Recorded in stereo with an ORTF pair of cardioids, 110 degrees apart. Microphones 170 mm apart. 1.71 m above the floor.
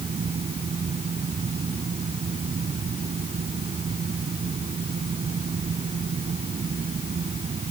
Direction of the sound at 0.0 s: 35° right.